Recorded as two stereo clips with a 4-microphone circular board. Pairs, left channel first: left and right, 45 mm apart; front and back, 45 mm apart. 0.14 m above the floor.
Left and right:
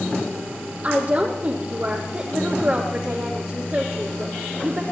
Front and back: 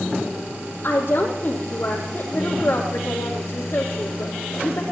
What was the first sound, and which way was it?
A woman speaking, 35° right.